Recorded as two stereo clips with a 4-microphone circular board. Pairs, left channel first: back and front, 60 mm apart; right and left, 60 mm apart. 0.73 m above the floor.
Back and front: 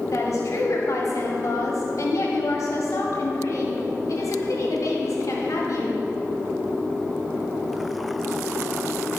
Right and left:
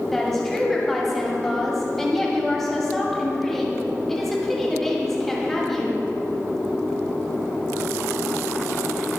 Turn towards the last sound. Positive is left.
turn(degrees=-175)